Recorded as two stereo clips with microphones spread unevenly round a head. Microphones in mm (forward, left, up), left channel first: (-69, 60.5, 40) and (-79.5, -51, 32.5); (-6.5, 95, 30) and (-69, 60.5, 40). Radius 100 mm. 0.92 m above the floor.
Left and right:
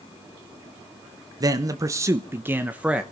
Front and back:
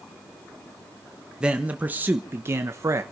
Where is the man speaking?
70° right, 1.1 m; by 3.0 s 165° right, 1.1 m.